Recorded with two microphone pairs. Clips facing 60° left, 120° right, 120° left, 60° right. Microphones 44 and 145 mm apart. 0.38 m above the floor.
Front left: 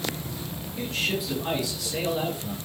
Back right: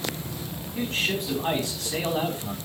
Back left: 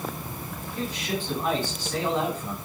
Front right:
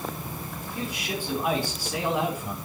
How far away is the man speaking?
About 3.5 m.